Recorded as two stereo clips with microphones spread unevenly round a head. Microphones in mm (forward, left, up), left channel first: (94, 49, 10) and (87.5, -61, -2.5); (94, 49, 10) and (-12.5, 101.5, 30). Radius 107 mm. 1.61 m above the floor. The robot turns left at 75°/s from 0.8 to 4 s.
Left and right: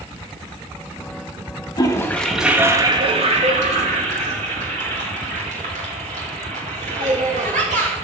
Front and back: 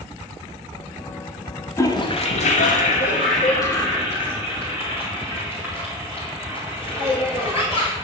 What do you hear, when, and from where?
1.8 s a toilet flushing: 40° left, 2.5 m; by 8.1 s 130° right, 2.5 m